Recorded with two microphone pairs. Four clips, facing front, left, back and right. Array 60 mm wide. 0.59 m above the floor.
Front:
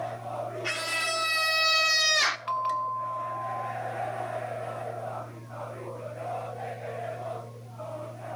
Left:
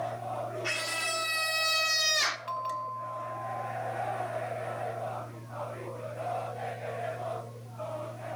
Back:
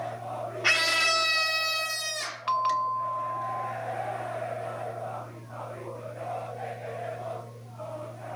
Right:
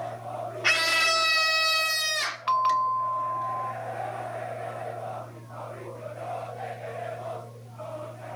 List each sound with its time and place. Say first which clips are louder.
0.6 s a scream: right 13 dB, back 8 dB; 125° right, 1.6 m; by 2.4 s 5° right, 1.8 m
2.5 s a bell: right 11 dB, back 3 dB; 100° right, 0.5 m